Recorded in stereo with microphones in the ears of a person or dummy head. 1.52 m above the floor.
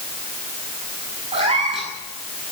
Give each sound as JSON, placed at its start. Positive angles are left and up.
{"t": 1.3, "sound": "a cat meowing", "side_deg": -40, "distance_m": 8.0}